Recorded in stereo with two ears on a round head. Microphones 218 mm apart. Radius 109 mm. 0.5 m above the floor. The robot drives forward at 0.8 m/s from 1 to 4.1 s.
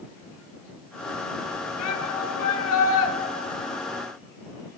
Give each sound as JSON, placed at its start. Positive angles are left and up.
{"t": 1.8, "sound": "a shout", "side_deg": 70, "distance_m": 5.5}